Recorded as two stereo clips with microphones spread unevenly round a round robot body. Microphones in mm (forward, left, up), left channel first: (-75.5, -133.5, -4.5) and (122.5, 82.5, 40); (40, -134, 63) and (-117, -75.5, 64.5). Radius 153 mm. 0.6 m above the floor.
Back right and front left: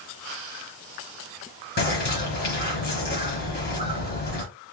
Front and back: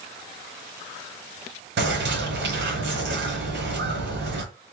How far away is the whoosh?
I don't hear a whoosh.